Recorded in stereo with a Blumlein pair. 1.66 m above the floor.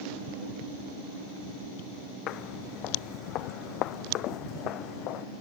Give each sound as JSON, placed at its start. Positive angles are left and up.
{"t": 2.3, "sound": "footsteps", "azimuth_deg": 35}